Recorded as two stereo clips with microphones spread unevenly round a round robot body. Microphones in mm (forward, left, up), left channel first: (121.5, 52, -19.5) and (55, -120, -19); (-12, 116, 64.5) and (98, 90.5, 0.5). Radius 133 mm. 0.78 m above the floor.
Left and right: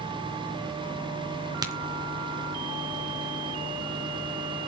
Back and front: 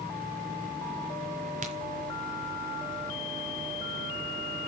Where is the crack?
40° right, 3.5 m.